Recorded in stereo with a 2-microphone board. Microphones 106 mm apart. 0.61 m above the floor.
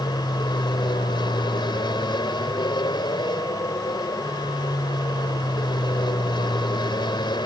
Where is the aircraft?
45° left (ahead or behind).